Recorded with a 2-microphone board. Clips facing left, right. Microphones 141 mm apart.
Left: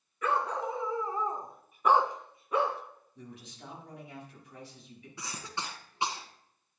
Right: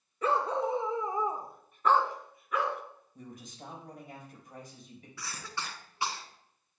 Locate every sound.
0.2 s a dog barking: 30° right (ahead or behind), 0.9 m; by 2.8 s 30° left (ahead or behind), 0.8 m
3.1 s a man speaking: 45° right (ahead or behind), 4.5 m
5.2 s a cough: 20° left (ahead or behind), 1.3 m